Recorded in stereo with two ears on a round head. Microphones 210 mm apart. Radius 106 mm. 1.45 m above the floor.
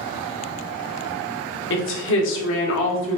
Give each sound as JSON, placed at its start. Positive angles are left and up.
{"t": 1.7, "sound": "a woman speaking", "side_deg": 55, "distance_m": 0.7}